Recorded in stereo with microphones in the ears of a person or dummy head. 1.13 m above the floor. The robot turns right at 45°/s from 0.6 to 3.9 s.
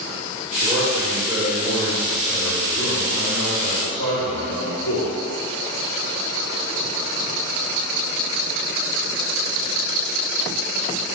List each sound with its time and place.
0.6 s a man speaking: 35° right, 1.2 m; by 5.2 s 115° left, 1.2 m